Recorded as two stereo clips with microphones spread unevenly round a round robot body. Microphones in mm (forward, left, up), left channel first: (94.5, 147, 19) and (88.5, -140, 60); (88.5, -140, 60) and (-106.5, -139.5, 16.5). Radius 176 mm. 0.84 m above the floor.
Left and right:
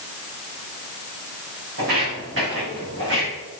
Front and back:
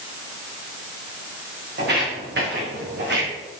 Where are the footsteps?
145° right, 4.5 m; by 3.3 s 150° right, 3 m.